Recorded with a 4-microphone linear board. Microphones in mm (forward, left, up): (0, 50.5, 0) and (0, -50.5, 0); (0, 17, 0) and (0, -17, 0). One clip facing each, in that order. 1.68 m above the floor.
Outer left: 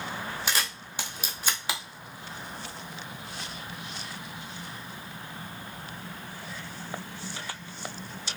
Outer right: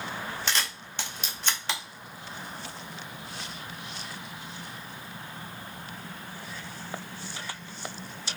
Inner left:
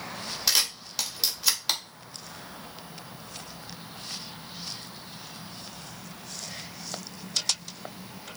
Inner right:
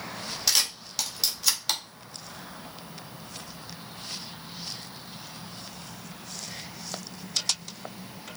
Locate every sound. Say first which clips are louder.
0.5 s a camera shutter: outer left 1 dB, even; 10° left (ahead or behind), 0.6 m